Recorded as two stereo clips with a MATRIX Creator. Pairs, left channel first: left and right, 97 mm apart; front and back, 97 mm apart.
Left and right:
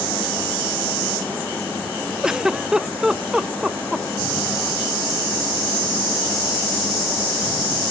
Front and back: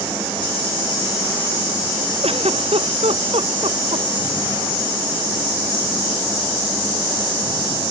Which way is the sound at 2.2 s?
175° right.